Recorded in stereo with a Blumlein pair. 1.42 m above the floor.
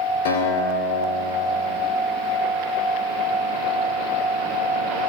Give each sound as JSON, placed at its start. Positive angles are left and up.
{"t": 0.2, "sound": "a guitar", "azimuth_deg": 60, "distance_m": 2.5}